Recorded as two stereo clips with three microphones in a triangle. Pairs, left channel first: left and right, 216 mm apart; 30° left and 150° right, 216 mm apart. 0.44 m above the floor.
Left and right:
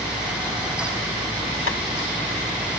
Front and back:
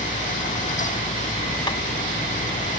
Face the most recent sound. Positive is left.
turn(degrees=95)